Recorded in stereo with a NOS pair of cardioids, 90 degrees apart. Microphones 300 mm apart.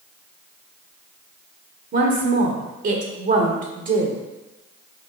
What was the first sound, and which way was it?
A woman speaking, 40° right.